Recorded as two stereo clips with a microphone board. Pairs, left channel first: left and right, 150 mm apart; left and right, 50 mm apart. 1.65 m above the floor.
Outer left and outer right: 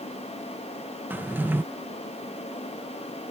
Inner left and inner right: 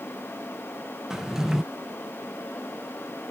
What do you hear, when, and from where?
1.1 s a drawer: 15° right (ahead or behind)